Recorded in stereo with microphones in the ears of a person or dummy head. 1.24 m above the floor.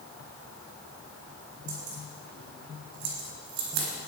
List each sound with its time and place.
1.7 s keys jangling: 65° right (ahead or behind), 7 m